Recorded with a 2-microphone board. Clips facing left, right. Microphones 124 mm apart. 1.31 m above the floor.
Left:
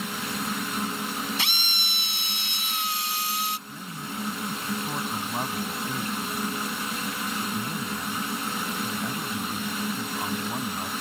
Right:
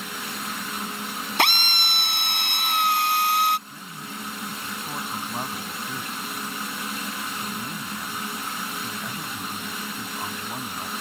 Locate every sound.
1.4 s a drill: 55° right (ahead or behind)
3.7 s a man speaking: 5° left (ahead or behind)